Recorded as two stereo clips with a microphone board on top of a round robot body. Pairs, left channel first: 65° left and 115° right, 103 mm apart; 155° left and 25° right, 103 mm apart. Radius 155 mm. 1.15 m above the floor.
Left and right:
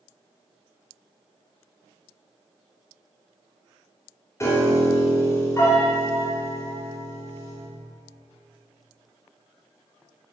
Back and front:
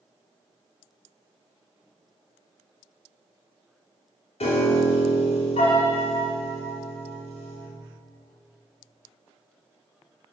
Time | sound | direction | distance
4.4 | a piano | 130° left | 3 m